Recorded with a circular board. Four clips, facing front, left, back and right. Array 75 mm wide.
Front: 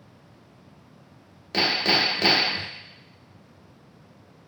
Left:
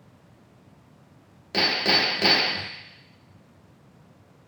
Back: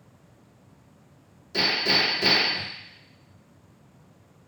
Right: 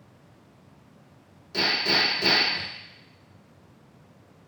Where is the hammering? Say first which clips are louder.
Left 2 dB, front 2 dB; 45° left, 1.1 m.